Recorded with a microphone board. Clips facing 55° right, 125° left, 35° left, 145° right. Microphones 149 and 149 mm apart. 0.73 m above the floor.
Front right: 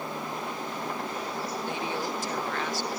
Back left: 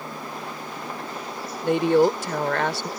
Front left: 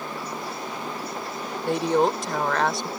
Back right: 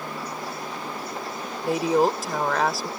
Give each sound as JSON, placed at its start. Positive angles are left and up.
{"t": 1.6, "sound": "a woman speaking", "azimuth_deg": 125}